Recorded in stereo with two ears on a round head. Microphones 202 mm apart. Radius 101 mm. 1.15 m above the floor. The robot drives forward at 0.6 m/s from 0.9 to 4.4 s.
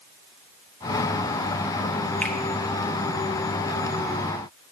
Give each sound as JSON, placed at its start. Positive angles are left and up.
{"t": 2.2, "sound": "a finger snap", "side_deg": 5, "distance_m": 0.8}